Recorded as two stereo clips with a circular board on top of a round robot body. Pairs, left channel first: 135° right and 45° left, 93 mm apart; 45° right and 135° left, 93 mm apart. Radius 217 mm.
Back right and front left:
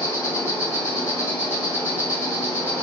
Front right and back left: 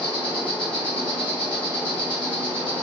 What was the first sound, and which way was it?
An insect, 70° right.